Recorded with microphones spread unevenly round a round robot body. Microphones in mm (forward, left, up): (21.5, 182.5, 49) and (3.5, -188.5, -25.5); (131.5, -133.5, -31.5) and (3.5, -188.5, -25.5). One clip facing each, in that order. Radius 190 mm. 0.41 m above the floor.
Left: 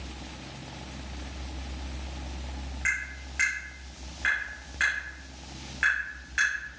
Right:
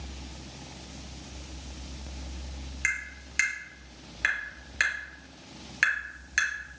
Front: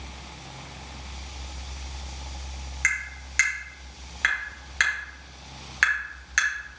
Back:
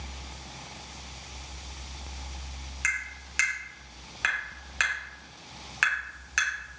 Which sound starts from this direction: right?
Tapping, at 2.8 s.